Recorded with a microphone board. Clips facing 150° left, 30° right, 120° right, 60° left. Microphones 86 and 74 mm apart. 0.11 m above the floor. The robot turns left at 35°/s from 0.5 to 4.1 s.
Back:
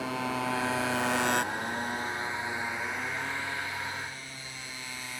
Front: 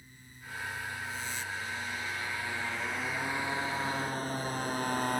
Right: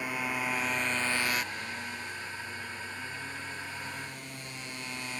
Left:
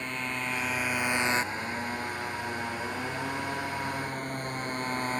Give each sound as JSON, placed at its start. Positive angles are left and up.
{"t": 0.0, "sound": "a motorcycle", "azimuth_deg": 160}